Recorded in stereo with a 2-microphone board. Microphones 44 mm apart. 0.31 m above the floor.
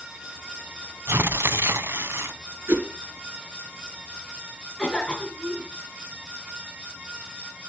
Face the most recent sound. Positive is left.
turn(degrees=20)  # may be behind; listen again after turning